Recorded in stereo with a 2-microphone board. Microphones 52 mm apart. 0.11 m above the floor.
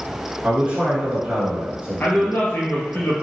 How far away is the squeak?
No squeak in this recording.